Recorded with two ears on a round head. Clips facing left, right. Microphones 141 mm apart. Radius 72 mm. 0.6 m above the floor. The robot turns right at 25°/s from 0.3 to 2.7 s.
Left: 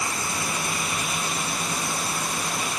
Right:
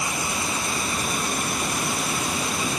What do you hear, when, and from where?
0.0 s running water: 165° right; by 2.8 s 105° right